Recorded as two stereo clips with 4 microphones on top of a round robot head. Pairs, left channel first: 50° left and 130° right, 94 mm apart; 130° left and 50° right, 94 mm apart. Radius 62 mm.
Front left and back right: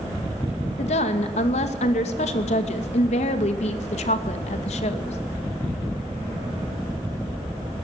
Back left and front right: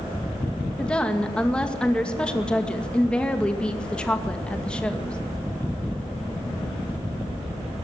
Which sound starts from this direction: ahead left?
A woman speaking, at 0.8 s.